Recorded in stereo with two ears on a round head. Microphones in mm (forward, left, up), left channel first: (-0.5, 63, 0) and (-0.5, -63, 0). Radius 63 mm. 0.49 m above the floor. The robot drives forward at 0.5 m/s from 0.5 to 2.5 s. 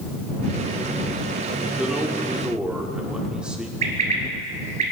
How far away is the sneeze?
I don't hear a sneeze.